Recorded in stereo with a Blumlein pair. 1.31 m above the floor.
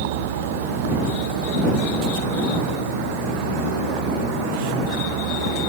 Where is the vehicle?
55° right; by 5.7 s 45° right.